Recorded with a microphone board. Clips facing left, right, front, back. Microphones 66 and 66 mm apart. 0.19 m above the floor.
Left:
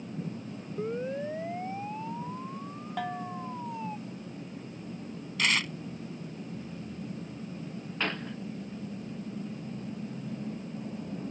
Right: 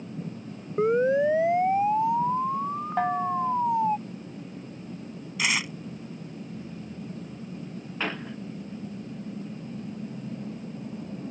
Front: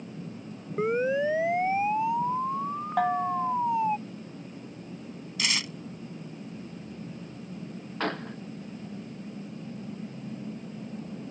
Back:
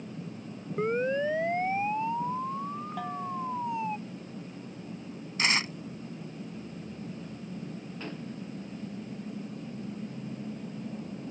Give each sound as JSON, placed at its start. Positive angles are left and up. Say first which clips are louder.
{"t": 0.8, "sound": "a siren", "louder": "right 12 dB, front 2 dB", "azimuth_deg": -80}
{"t": 3.0, "sound": "a bell", "louder": "right 10 dB, front 11 dB", "azimuth_deg": -35}
{"t": 5.4, "sound": "tearing paper", "louder": "right 1 dB, back 4 dB", "azimuth_deg": -165}
{"t": 8.0, "sound": "a gunshot", "louder": "right 1 dB, front 11 dB", "azimuth_deg": -5}